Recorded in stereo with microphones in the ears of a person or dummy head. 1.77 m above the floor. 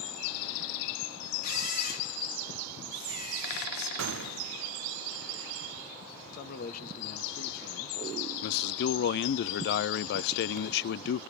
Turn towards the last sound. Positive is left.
turn(degrees=60)  # may be behind; listen again after turning